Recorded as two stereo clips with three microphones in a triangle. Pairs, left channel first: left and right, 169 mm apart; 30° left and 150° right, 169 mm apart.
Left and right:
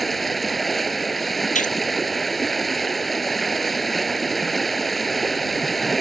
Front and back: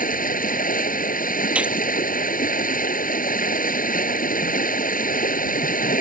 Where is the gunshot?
130° left.